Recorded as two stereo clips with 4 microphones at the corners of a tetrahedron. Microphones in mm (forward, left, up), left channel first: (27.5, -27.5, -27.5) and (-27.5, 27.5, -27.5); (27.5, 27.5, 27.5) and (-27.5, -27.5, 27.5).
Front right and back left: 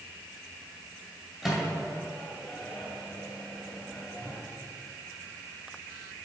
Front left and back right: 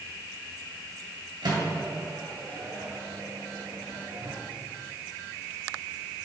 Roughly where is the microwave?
Behind right.